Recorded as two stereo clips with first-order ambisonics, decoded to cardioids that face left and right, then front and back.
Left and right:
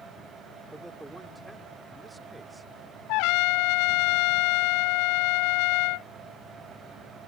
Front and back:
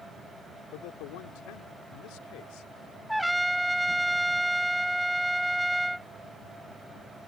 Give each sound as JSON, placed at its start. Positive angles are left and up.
{"t": 0.7, "sound": "a man speaking", "azimuth_deg": -5}
{"t": 3.1, "sound": "a trumpet", "azimuth_deg": 90}